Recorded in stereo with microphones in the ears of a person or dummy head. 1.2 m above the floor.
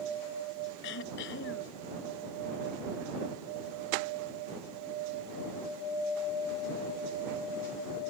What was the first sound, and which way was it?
Throat clearing, 70° left (ahead or behind).